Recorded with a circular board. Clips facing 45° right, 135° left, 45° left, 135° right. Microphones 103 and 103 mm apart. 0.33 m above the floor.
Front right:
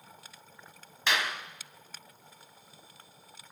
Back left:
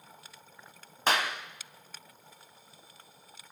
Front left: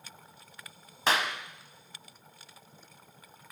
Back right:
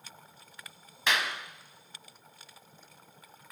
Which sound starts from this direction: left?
A clap, at 1.1 s.